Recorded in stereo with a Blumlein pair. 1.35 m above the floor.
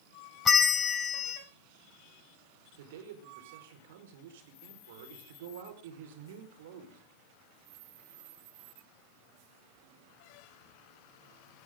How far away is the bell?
About 1.4 m.